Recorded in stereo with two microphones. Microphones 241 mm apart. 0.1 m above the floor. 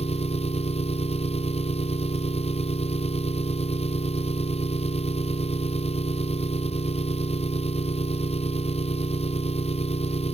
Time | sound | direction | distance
0.0 | an engine running | 25° left (ahead or behind) | ?